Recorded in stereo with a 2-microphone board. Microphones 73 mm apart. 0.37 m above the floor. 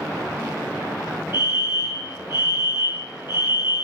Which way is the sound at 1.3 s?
35° right (ahead or behind).